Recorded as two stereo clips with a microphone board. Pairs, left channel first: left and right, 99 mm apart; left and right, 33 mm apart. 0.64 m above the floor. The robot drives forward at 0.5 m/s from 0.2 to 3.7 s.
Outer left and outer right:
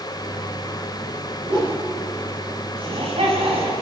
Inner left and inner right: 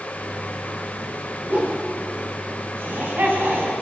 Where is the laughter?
70° right (ahead or behind), 6 m; by 3.7 s 75° right (ahead or behind), 6 m.